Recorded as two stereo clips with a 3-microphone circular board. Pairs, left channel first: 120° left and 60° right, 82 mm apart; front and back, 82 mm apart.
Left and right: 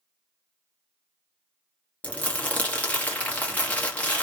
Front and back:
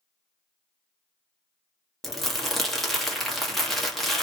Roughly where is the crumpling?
Left.